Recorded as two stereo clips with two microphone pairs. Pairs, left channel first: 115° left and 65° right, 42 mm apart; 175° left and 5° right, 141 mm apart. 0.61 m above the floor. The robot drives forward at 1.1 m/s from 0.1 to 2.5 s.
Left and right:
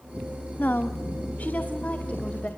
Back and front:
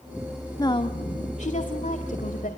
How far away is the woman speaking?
About 1.0 m.